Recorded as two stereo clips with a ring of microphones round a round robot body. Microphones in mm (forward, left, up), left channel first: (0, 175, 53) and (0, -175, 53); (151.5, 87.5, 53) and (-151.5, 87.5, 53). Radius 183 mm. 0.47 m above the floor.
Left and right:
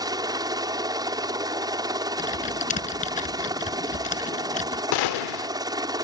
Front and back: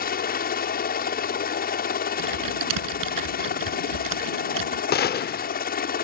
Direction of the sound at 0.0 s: 20° right.